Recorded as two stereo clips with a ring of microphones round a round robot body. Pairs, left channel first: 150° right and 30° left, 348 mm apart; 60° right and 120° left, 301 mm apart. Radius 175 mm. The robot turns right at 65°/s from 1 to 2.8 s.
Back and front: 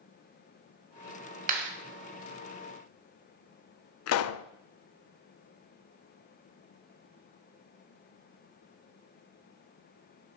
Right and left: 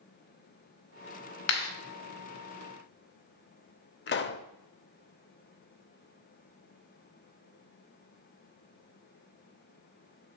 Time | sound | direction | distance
1.5 | a clap | 35° right | 2 m
4.1 | a pop | 110° right | 0.5 m